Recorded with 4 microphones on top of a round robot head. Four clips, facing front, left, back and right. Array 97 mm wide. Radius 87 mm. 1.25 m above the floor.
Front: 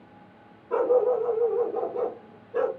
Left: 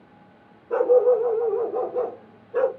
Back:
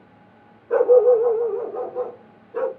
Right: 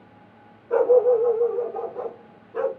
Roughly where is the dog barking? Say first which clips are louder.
Even, back 8 dB; behind.